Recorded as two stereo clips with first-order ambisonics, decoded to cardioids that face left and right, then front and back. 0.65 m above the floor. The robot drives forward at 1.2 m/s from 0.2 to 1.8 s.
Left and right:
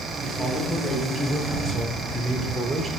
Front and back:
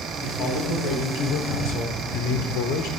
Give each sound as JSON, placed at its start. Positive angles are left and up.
{"t": 0.2, "sound": "a man speaking", "azimuth_deg": -10, "distance_m": 3.0}